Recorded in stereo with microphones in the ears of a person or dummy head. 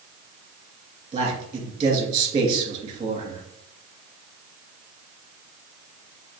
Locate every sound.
1.1 s a man speaking: 25° right (ahead or behind), 2 m